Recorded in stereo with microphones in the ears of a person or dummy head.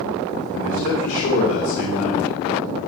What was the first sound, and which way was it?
A man speaking, 40° left (ahead or behind).